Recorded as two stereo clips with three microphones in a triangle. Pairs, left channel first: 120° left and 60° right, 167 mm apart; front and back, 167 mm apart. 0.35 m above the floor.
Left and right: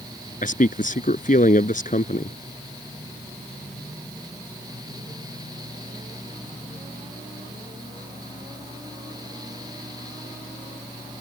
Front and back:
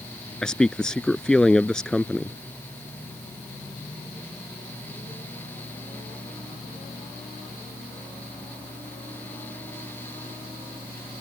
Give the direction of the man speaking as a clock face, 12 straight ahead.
9 o'clock.